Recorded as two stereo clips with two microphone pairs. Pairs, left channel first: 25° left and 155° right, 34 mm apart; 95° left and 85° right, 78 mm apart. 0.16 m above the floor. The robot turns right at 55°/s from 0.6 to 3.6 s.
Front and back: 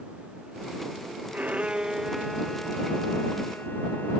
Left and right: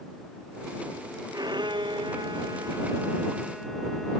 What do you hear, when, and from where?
1.3 s a violin: 115° right; by 4.2 s 5° left